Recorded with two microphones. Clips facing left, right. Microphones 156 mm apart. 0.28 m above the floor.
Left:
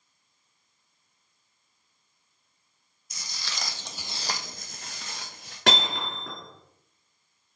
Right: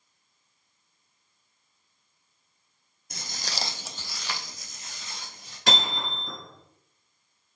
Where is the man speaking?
I don't hear a man speaking.